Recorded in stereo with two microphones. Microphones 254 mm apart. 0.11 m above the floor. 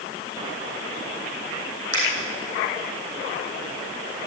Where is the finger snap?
70° left (ahead or behind), 5 m.